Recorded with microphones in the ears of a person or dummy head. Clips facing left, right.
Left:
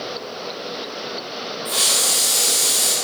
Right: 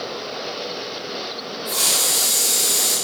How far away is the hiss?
About 0.6 m.